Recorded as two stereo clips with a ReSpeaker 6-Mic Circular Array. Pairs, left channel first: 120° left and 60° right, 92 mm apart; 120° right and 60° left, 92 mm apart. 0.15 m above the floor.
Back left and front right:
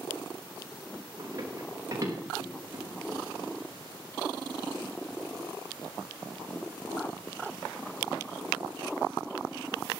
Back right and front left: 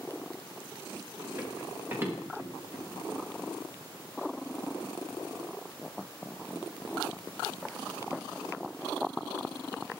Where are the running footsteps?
5° right, 6 m; by 3.2 s straight ahead, 4.5 m.